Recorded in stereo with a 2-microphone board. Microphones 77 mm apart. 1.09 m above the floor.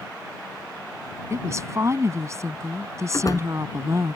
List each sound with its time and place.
1.3 s a woman speaking: 40° right (ahead or behind)
3.1 s a door slam: 45° left (ahead or behind)